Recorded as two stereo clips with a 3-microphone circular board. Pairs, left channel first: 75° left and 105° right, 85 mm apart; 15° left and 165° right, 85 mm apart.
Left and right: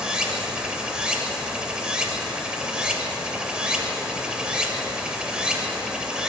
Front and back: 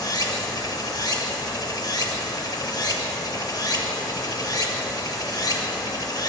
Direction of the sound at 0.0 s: 25° right.